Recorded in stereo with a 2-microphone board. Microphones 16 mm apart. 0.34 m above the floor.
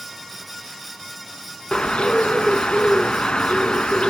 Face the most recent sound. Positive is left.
turn(degrees=85)